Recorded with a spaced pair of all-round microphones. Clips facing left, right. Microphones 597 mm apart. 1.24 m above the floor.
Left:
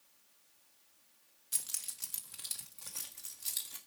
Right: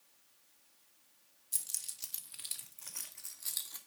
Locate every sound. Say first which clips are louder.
1.5 s keys jangling: left 6 dB; 80° left, 1.3 m; by 3.8 s 50° left (ahead or behind), 2.5 m